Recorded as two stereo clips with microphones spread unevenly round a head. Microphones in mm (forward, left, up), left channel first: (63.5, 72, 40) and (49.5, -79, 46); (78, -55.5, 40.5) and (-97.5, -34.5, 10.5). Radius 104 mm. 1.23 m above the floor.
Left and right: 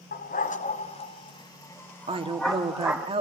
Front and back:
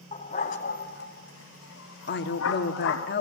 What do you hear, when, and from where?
0.1 s a dog barking: 55° left, 3 m; by 3.1 s 10° right, 4 m
2.1 s a woman speaking: 40° right, 2.5 m